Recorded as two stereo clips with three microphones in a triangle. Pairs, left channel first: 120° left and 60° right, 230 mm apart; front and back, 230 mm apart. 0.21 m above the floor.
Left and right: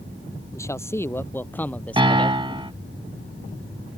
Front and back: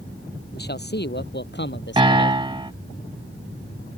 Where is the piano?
115° right.